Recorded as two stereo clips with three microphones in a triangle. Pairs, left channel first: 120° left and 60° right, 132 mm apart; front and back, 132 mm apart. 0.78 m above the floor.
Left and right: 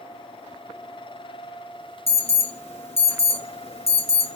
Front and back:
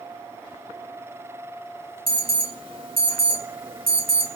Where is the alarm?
145° left, 1.0 m.